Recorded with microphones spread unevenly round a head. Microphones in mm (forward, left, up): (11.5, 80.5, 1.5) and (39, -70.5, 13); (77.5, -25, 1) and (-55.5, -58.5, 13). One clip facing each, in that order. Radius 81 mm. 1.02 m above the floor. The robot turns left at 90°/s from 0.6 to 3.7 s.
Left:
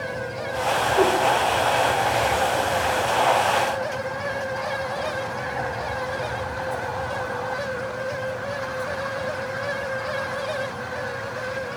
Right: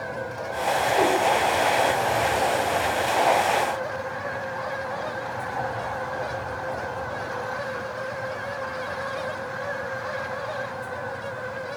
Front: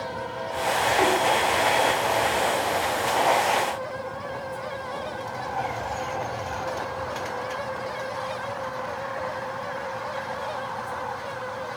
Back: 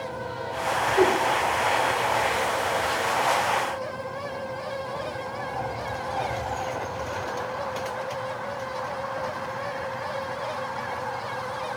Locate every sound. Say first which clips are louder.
1.0 s a whoosh: left 3 dB, back 3 dB; straight behind, 2 m; by 1.2 s 155° left, 2 m